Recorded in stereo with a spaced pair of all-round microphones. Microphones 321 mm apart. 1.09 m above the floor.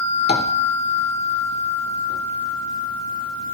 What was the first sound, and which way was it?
Tapping, 30° left (ahead or behind).